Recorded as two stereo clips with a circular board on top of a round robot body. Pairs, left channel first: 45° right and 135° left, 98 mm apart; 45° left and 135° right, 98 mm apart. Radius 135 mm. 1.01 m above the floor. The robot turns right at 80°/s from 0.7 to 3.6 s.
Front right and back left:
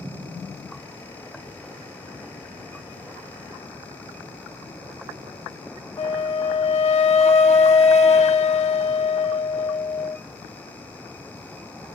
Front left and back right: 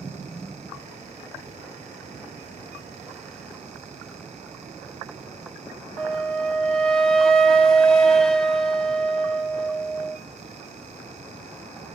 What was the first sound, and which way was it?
A flute, 35° right.